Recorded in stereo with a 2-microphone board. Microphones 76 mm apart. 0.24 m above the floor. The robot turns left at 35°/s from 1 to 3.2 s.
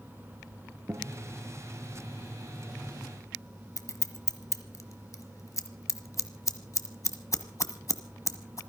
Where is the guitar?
30° right (ahead or behind), 4 m; by 1.2 s 25° right (ahead or behind), 4 m.